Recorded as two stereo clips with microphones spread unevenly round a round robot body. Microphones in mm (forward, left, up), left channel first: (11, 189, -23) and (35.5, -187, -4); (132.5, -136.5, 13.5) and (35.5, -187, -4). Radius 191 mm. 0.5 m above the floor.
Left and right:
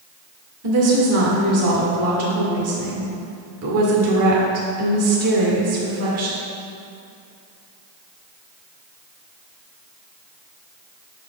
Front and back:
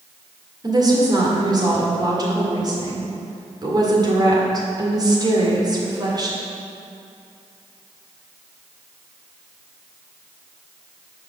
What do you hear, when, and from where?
0.6 s a woman speaking: 125° right, 1.8 m